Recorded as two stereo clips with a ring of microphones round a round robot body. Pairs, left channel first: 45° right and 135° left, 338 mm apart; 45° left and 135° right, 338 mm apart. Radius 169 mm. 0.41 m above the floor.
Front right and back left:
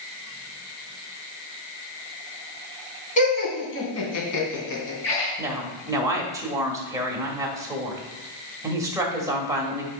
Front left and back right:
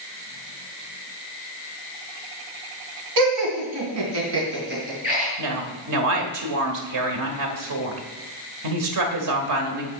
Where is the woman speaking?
145° right, 1.7 m.